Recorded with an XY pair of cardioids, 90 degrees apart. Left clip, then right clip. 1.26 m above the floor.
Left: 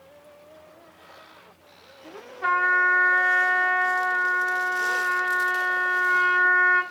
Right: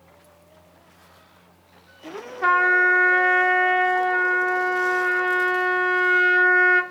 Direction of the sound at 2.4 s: 50° right.